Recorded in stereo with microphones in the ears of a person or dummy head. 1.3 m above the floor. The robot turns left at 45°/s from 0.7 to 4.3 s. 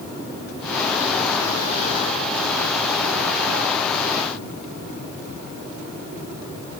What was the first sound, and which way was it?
Only background noise.